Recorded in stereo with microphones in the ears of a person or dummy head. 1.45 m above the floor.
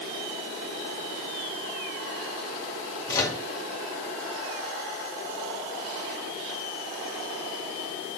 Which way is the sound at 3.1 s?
20° left (ahead or behind).